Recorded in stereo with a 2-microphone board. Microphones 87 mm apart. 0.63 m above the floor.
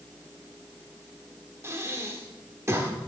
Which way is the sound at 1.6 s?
30° right (ahead or behind).